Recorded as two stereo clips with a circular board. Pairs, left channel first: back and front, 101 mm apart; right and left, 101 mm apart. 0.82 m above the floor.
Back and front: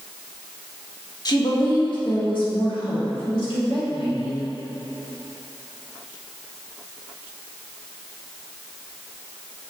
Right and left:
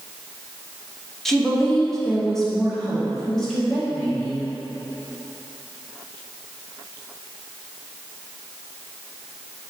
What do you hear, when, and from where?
1.2 s a woman speaking: 175° right, 1.3 m; by 4.4 s 170° right, 2.5 m